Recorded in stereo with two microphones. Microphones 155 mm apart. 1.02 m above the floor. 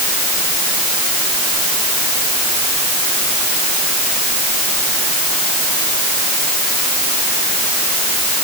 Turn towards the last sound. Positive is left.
No sound to turn to.